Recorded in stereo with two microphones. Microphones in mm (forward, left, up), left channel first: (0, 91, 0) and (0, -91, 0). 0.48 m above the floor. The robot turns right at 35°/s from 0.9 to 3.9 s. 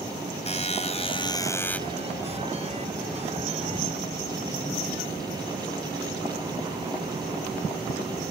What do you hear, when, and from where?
0.5 s a buzzer: 140° left; by 1.8 s 175° left